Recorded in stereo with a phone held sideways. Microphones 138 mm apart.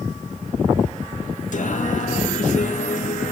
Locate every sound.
1.5 s singing: 65° left (ahead or behind), 1.7 m